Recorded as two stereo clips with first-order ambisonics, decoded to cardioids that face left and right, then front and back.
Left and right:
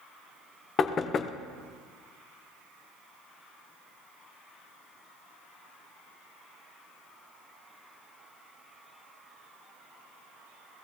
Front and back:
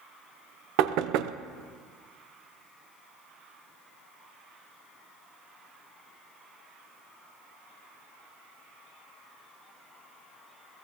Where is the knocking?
155° left, 0.6 m.